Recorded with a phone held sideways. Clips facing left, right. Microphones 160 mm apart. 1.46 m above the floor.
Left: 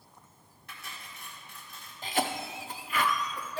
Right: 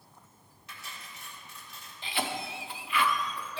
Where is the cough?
45° left (ahead or behind), 0.7 m.